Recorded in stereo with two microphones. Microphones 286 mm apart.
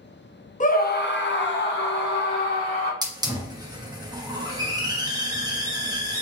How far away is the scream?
About 0.8 m.